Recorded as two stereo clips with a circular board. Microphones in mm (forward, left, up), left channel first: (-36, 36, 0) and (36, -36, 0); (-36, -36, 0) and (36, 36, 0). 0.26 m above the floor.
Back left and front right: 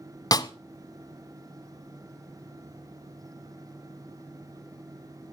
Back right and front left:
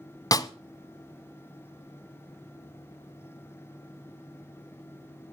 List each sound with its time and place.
0.3 s a snare drum: 175° left, 0.6 m